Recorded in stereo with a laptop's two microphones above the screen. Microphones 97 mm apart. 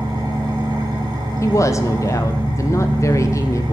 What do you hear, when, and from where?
0.0 s an engine running: 45° right (ahead or behind), 2.5 m
1.4 s a woman speaking: 30° left (ahead or behind), 0.7 m